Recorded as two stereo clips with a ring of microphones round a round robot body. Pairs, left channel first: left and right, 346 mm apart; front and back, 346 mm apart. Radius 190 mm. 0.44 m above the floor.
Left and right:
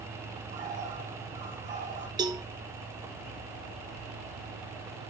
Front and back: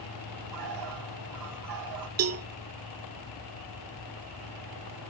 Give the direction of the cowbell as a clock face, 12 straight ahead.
5 o'clock.